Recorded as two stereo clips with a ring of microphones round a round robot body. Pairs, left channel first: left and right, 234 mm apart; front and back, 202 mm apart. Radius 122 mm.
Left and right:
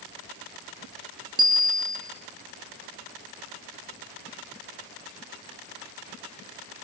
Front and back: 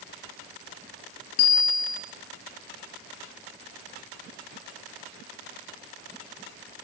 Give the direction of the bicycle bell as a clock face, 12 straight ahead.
1 o'clock.